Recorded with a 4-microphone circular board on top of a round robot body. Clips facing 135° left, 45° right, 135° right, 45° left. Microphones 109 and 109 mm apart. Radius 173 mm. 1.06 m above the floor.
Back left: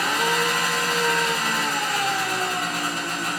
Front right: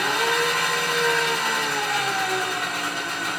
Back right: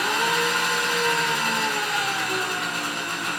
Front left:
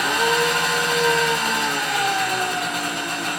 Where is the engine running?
85° left, 1.8 m.